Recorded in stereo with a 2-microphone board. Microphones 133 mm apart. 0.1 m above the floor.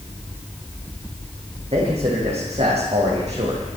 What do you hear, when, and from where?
1.7 s a man speaking: 55° right (ahead or behind), 5.5 m; by 3.8 s 60° right (ahead or behind), 5 m